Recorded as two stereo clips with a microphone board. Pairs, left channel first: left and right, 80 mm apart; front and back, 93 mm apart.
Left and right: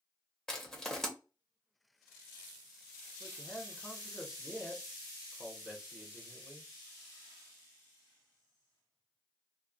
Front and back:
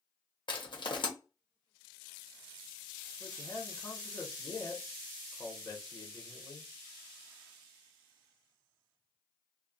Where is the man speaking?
10° right, 0.9 m.